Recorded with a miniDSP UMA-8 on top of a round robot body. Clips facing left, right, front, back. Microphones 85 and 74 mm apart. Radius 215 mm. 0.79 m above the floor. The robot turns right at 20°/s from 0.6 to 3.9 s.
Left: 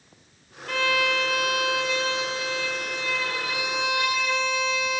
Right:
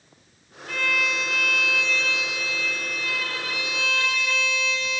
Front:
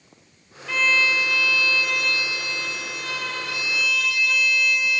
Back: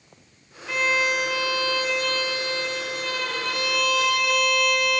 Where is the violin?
100° left, 0.9 m; by 5.0 s 165° left, 0.9 m.